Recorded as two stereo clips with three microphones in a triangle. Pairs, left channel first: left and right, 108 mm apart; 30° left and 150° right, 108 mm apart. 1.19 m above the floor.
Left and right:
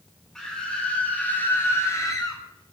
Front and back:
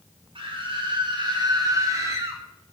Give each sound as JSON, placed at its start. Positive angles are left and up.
{"t": 0.3, "sound": "a scream", "azimuth_deg": 175, "distance_m": 5.0}